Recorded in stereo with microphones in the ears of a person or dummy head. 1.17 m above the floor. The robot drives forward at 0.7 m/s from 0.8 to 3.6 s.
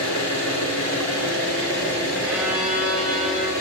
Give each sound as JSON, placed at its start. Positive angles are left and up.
{"t": 0.0, "sound": "an engine running", "side_deg": 10, "distance_m": 4.5}
{"t": 2.2, "sound": "a violin", "side_deg": -5, "distance_m": 2.0}